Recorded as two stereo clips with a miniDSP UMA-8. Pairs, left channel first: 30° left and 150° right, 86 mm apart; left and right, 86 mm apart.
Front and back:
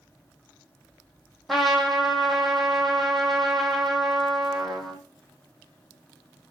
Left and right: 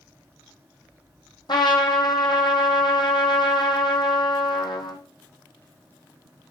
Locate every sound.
1.5 s a trumpet: 120° left, 1.3 m